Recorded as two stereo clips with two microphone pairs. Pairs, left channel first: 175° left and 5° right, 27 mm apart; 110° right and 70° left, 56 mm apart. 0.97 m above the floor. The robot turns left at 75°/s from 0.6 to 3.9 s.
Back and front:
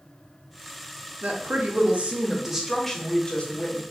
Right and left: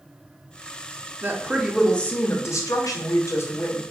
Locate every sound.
1.2 s a woman speaking: 20° left, 0.7 m; by 3.8 s 175° right, 0.7 m